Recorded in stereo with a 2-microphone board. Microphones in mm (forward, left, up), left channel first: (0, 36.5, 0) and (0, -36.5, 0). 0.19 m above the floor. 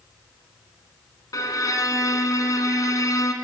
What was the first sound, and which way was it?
A violin, 50° left (ahead or behind).